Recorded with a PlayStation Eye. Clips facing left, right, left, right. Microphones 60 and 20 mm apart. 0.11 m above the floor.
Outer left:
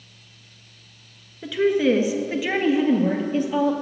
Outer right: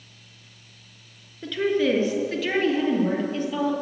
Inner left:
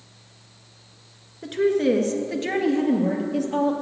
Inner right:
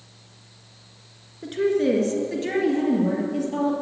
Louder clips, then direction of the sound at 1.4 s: Outer left 3 dB, inner left 1 dB; 10° left (ahead or behind).